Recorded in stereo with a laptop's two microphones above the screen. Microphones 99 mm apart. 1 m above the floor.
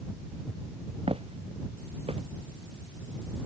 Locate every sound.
1.1 s footsteps: 80° right